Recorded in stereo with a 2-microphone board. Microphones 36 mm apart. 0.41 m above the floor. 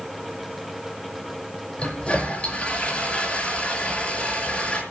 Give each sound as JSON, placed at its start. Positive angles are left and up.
{"t": 1.8, "sound": "a toilet flushing", "side_deg": 30, "distance_m": 5.5}